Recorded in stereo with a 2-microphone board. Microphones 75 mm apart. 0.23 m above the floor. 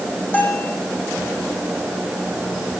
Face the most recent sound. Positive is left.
turn(degrees=25)  # may be behind; listen again after turning